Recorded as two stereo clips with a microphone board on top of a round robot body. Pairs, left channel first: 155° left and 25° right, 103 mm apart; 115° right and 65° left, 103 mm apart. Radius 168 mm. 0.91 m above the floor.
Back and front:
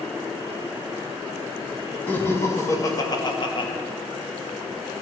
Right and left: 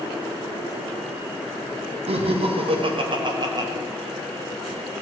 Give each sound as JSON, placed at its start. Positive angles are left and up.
{"t": 2.1, "sound": "laughter", "azimuth_deg": 85, "distance_m": 1.7}